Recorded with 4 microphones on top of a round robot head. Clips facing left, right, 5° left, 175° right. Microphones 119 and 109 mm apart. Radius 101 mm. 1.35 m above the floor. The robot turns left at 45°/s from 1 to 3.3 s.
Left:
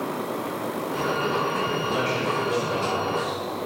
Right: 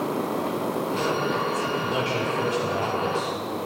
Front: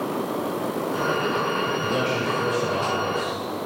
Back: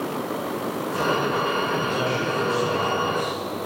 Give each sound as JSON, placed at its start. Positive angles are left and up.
{"t": 1.8, "sound": "a man speaking", "azimuth_deg": -15, "distance_m": 5.5}